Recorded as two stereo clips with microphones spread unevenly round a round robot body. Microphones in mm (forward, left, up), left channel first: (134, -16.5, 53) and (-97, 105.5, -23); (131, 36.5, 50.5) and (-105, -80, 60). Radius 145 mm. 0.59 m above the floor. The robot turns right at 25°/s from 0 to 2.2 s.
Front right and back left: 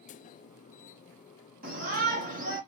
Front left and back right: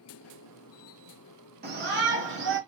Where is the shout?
165° left, 1.6 m; by 2.6 s straight behind, 1.6 m.